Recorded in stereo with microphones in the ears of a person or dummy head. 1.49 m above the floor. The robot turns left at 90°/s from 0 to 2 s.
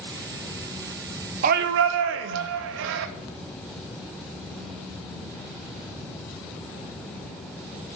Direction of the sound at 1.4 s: 45° right.